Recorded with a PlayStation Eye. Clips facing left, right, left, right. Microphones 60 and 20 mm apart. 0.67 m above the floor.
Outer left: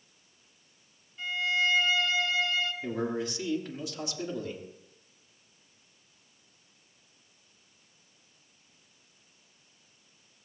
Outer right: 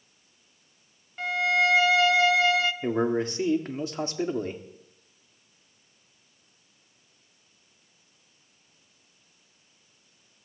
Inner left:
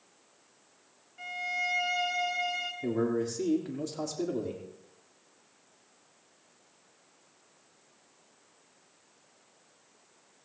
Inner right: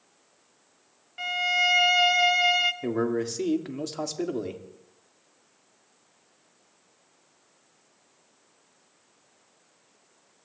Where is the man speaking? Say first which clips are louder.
Outer right 7 dB, inner right 3 dB; 40° right (ahead or behind), 1.5 m.